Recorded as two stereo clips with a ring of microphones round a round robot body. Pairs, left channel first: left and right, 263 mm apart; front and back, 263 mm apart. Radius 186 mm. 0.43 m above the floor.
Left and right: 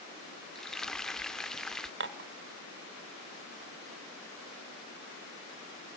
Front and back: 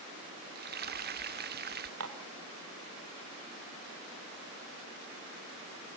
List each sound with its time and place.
0.6 s frying: 175° left, 0.8 m
2.0 s dishes clattering: 135° right, 1.2 m